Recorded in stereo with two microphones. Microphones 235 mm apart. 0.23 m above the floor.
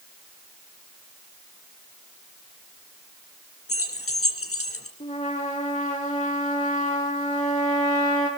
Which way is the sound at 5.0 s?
30° left (ahead or behind).